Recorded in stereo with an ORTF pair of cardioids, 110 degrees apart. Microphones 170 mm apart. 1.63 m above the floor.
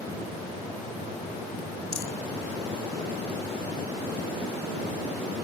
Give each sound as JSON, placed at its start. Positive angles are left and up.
{"t": 1.9, "sound": "a rattle", "azimuth_deg": 40}